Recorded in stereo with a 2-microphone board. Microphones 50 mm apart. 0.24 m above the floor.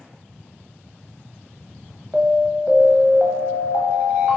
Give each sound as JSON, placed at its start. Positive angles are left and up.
{"t": 2.1, "sound": "an alarm", "side_deg": -25, "distance_m": 0.7}